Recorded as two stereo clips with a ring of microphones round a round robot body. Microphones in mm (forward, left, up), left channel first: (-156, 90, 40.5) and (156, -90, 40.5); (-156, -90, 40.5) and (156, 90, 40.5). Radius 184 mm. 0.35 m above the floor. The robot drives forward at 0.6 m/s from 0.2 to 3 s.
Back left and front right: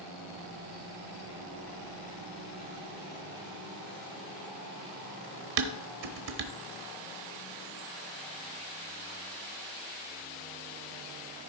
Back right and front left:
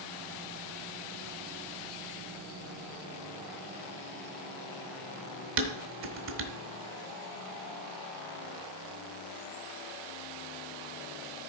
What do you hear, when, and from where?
5.6 s dishes clattering: 25° right, 1.1 m